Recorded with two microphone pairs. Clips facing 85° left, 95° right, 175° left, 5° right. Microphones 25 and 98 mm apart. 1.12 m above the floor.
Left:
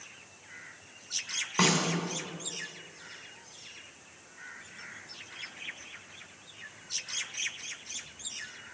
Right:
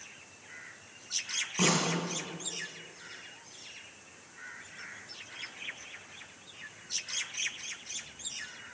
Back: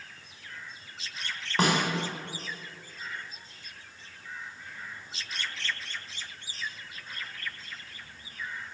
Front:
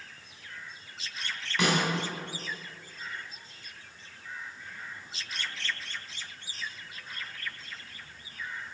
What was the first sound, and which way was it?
A snare drum, 130° left.